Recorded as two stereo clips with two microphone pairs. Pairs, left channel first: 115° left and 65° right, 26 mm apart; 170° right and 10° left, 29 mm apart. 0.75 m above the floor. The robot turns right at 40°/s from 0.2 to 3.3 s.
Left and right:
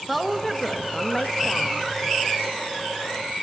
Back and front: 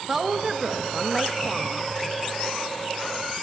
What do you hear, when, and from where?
0.1 s a woman speaking: 10° left, 0.5 m; by 1.9 s 80° left, 0.5 m